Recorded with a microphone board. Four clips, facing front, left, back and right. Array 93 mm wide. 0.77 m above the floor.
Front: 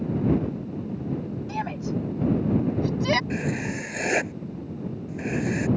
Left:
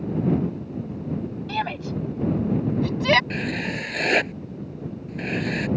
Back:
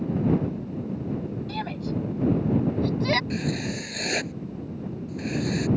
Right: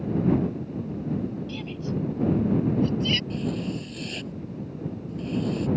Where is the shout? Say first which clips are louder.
Left 4 dB, front 3 dB; 70° left; by 3.2 s 80° left.